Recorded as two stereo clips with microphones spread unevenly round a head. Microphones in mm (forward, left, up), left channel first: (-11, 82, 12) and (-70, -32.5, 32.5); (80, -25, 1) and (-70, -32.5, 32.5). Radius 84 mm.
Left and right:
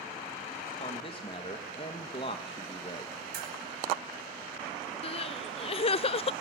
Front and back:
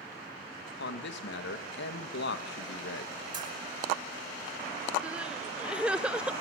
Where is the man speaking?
Straight ahead, 2.5 m.